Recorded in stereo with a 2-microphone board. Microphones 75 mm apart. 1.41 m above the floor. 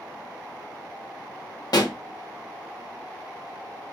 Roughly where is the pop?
Left.